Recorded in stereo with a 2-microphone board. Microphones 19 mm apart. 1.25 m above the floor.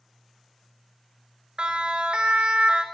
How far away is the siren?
About 2 m.